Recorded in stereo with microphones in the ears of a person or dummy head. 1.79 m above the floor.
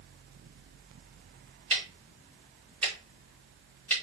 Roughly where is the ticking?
Centre.